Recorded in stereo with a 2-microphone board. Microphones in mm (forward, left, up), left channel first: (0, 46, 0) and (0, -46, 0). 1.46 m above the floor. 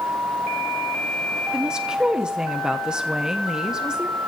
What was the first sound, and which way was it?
A woman speaking, 10° right (ahead or behind).